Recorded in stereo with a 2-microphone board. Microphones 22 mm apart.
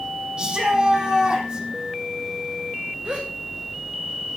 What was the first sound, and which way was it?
A shout, 50° right (ahead or behind).